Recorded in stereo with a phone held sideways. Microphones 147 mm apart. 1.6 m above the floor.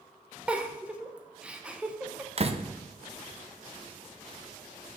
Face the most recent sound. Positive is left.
turn(degrees=-45)  # may be behind; listen again after turning